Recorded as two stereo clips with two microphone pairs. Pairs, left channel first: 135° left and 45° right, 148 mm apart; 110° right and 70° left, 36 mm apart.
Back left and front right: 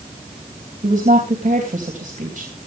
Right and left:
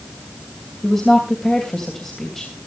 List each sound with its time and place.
0.8 s a woman speaking: 30° right, 3 m